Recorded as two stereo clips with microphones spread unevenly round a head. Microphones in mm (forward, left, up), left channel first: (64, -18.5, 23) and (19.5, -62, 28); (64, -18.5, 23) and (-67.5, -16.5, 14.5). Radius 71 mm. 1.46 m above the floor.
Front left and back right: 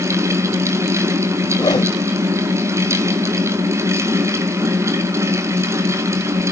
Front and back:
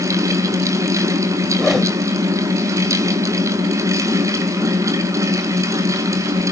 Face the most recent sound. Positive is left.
turn(degrees=90)